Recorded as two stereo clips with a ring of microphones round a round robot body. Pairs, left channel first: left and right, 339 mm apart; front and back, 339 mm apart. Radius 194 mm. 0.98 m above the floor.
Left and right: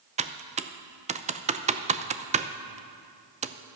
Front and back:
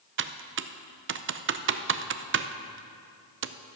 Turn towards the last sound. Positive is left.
turn(degrees=-150)